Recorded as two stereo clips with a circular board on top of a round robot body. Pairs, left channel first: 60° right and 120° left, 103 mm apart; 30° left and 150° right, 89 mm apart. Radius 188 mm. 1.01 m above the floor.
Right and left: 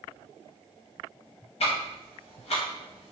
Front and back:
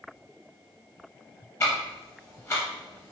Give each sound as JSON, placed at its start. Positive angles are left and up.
{"t": 1.6, "sound": "ticking", "azimuth_deg": -30, "distance_m": 0.7}